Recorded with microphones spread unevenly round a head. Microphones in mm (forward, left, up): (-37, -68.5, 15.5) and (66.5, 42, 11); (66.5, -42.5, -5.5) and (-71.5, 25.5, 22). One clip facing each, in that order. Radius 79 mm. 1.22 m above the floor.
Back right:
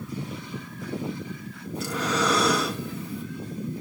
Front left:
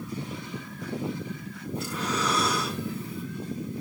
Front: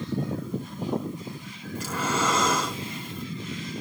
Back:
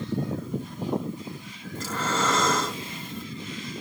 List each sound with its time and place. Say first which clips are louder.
1.8 s breathing: back right 4 dB, even; 105° right, 2.5 m